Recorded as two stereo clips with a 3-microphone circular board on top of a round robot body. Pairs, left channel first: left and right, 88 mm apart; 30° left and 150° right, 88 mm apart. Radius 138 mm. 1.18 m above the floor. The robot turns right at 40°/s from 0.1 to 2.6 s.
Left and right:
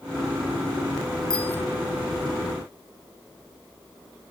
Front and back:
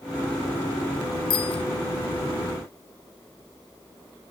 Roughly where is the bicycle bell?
Ahead.